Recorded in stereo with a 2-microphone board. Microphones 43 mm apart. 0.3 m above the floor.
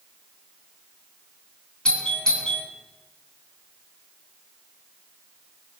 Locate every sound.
1.9 s a doorbell: 20° left (ahead or behind), 3.5 m